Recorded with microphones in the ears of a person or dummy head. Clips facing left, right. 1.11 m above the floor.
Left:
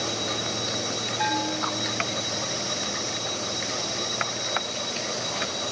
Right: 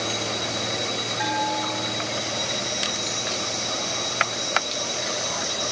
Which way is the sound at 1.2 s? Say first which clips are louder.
Right 1 dB; 15° right (ahead or behind).